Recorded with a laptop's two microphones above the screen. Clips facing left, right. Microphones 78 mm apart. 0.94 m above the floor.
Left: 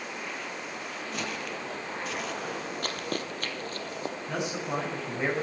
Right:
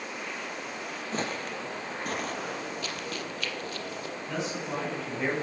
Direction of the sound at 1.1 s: 35° right (ahead or behind).